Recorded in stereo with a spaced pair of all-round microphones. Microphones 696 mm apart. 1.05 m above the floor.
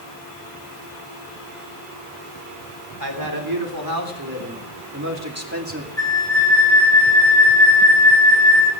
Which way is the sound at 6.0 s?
20° left (ahead or behind).